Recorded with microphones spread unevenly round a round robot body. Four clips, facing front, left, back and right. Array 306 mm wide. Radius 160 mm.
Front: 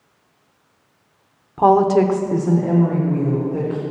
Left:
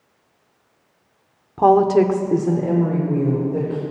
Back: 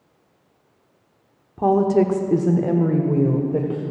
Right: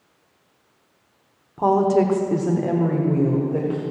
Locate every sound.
1.6 s a woman speaking: 70° left, 1.1 m; by 3.8 s 175° right, 2 m